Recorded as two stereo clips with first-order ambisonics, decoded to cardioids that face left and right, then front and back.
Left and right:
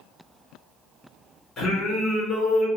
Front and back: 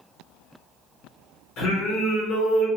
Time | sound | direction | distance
1.6 | singing | 30° left | 2.0 m